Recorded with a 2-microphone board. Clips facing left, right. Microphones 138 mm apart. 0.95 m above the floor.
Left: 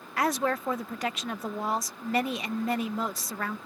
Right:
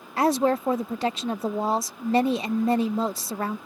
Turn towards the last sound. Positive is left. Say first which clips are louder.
# right 6 dB
turn(degrees=-30)  # may be behind; listen again after turning